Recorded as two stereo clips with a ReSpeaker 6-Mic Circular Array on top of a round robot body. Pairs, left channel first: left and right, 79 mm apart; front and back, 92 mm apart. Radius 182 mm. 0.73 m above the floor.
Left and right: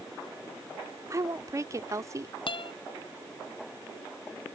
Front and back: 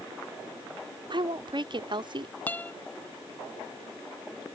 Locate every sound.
1.1 s a woman speaking: 145° right
2.5 s a guitar: 70° left